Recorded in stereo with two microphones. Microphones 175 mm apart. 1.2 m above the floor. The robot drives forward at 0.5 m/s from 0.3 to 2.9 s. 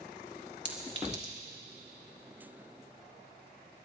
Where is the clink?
80° right, 2.5 m; by 1.3 s 75° right (ahead or behind), 2.5 m.